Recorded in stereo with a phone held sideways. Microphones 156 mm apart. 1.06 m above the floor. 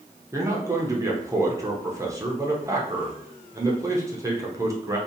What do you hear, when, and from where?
0.3 s a man speaking: 20° right (ahead or behind), 0.5 m